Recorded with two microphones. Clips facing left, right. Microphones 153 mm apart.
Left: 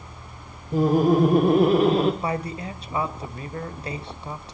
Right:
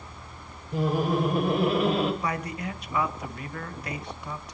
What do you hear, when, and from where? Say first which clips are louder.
0.7 s laughter: left 7 dB; 45° left (ahead or behind), 1.7 m; by 2.1 s 40° left (ahead or behind), 1.9 m
2.2 s a man speaking: left 3 dB; 30° left (ahead or behind), 2.0 m